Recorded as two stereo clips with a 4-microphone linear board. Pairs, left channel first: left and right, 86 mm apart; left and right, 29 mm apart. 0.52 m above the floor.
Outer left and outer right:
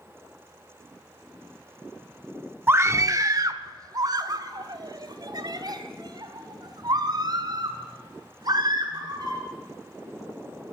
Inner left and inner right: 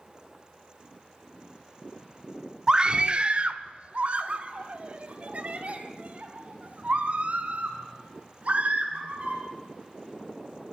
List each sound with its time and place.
2.7 s a scream: 25° right (ahead or behind), 0.7 m; by 9.4 s 50° right (ahead or behind), 6.5 m